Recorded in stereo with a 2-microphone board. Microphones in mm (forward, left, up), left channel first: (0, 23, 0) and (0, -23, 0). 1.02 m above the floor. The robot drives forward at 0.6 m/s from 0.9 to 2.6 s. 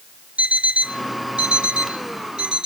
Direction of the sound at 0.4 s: 30° right (ahead or behind).